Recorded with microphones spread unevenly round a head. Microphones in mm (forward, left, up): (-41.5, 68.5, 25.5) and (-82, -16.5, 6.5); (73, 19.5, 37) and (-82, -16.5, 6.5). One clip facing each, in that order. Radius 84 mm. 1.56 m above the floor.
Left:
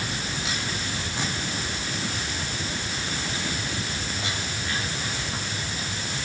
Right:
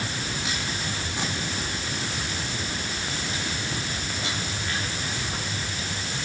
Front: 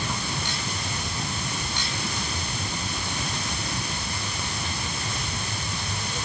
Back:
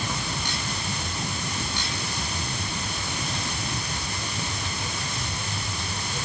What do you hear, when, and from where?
Only background noise.